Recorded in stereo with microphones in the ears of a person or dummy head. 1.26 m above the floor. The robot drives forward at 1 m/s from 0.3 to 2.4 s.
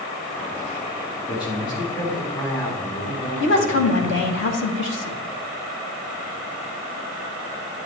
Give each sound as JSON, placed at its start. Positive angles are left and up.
{"t": 1.2, "sound": "a man speaking", "side_deg": 20, "distance_m": 3.0}
{"t": 3.4, "sound": "a woman speaking", "side_deg": 60, "distance_m": 1.8}